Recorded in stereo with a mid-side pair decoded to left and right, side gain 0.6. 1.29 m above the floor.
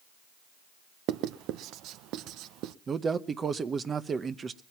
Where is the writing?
65° right, 0.7 m.